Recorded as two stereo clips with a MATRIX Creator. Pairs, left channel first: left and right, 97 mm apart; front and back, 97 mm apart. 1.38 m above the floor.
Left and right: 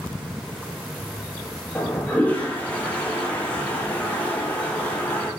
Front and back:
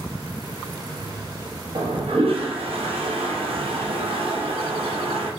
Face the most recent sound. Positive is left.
turn(degrees=165)